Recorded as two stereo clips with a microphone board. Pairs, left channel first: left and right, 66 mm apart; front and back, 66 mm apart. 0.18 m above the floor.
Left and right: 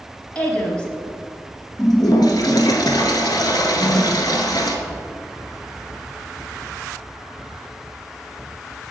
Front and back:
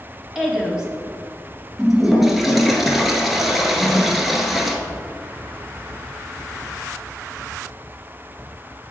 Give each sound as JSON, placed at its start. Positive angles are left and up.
{"t": 0.3, "sound": "a woman speaking", "azimuth_deg": 115, "distance_m": 1.0}
{"t": 1.8, "sound": "a toilet flushing", "azimuth_deg": 95, "distance_m": 0.7}
{"t": 3.8, "sound": "a whoosh", "azimuth_deg": 90, "distance_m": 2.0}